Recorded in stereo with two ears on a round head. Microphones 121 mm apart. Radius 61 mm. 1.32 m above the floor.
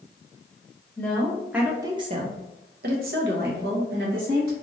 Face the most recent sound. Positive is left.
turn(degrees=-75)  # may be behind; listen again after turning